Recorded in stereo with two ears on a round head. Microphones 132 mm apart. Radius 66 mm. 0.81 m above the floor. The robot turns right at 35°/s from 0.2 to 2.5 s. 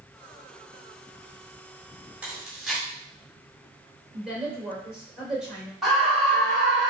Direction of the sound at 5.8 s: Centre (ahead or behind).